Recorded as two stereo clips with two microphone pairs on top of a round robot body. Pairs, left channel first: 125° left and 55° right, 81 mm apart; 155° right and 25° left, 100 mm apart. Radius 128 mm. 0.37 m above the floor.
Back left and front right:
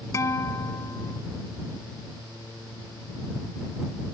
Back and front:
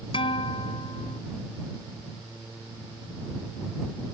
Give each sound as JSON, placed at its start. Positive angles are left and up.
{"t": 0.1, "sound": "a guitar", "azimuth_deg": 180}